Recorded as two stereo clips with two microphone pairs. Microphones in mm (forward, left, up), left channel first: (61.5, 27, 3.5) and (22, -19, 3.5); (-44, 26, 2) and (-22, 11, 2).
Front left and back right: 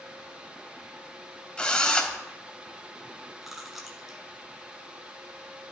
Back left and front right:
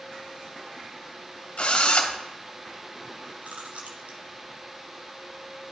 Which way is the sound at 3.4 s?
45° right.